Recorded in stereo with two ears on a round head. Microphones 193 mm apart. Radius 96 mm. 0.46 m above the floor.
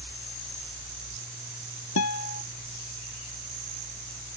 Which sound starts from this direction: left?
A guitar, at 2.0 s.